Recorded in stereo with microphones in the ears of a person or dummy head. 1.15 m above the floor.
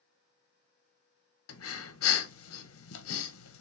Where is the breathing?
70° left (ahead or behind), 0.7 m.